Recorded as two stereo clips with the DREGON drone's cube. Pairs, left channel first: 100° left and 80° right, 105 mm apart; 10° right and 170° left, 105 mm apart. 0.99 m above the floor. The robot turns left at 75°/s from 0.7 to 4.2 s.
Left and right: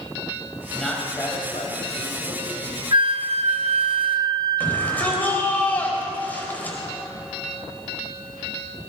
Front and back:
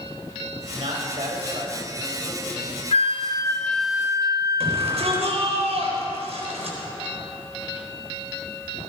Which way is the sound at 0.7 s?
165° right.